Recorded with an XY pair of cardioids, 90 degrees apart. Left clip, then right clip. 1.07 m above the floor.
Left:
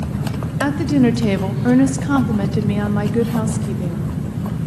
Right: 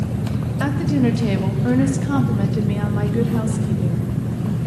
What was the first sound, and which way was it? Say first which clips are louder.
A woman speaking: left 4 dB; 35° left.